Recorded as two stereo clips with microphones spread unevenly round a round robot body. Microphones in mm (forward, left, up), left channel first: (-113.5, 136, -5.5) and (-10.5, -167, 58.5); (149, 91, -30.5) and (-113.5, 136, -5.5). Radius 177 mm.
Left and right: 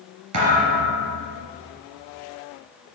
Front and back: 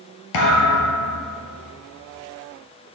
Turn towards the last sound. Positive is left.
turn(degrees=-25)